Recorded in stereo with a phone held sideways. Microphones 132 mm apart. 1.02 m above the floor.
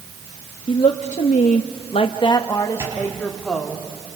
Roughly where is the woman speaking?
Left.